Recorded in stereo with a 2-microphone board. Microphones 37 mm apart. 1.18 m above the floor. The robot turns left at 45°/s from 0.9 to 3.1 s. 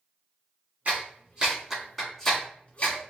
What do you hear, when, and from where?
0.8 s a clap: 45° right (ahead or behind), 2 m; by 3.1 s 55° left (ahead or behind), 2 m